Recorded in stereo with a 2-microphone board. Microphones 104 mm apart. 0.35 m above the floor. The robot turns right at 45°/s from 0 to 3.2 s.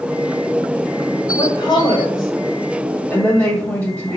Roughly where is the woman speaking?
Left.